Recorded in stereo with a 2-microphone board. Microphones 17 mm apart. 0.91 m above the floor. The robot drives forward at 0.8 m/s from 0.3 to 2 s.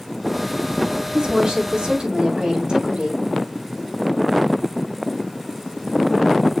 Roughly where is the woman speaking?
Right.